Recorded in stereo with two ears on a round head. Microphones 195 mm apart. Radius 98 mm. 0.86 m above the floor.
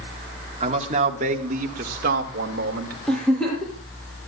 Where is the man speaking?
30° right (ahead or behind), 2.5 m; by 3.0 s 50° right (ahead or behind), 3.5 m.